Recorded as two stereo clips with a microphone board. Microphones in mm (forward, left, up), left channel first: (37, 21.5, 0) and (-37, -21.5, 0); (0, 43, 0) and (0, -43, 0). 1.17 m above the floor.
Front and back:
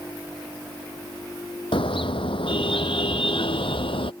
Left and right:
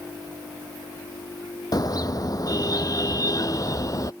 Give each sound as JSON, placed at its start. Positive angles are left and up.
{"t": 1.7, "sound": "a car horn", "azimuth_deg": 45}